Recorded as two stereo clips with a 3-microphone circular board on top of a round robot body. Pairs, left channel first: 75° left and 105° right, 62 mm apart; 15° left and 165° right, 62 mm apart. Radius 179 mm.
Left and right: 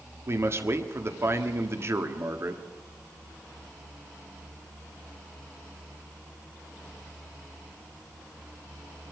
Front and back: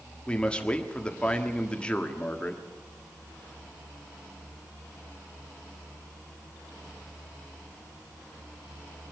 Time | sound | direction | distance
0.3 | a man speaking | 60° right | 1.9 m